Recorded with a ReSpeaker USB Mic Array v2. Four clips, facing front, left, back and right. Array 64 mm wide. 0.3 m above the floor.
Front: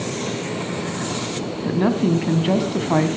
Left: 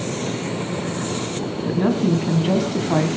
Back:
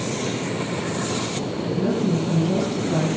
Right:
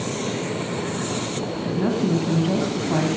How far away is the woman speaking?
About 1.9 m.